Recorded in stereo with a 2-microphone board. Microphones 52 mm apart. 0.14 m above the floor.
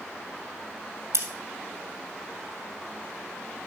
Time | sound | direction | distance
1.1 | scissors | 70° right (ahead or behind) | 2.5 m